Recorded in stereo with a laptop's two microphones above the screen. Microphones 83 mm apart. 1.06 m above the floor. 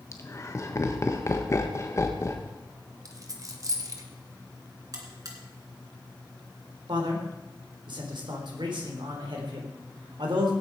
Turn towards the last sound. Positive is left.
turn(degrees=-70)  # may be behind; listen again after turning